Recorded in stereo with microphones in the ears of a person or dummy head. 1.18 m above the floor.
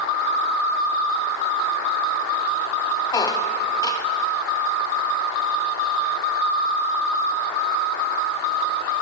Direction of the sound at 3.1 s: 20° left (ahead or behind).